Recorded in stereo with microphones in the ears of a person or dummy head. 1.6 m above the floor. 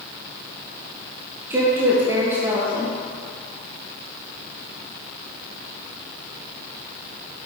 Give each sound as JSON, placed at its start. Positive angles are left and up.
{"t": 1.5, "sound": "a woman speaking", "side_deg": -10, "distance_m": 1.0}